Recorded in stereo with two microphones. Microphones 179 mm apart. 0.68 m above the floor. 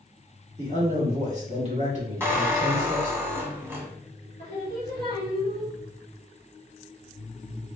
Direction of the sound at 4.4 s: 70° right (ahead or behind).